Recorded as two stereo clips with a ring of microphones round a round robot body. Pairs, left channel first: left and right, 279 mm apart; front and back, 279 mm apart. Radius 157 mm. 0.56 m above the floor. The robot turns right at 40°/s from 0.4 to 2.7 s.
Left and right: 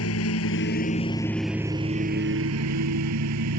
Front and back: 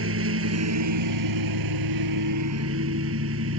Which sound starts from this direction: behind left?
A lawn mower, at 0.0 s.